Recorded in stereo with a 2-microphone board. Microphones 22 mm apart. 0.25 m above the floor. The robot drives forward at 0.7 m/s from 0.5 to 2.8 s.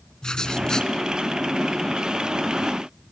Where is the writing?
35° left (ahead or behind), 2 m.